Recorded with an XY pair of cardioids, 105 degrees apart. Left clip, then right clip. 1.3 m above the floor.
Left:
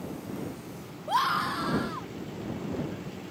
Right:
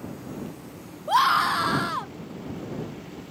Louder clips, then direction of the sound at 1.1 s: Right 6 dB; 30° right.